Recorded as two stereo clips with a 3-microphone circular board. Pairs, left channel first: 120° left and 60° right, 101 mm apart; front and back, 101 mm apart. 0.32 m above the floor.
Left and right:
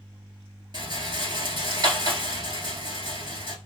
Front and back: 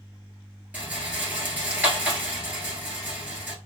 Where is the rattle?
105° right, 1.3 m.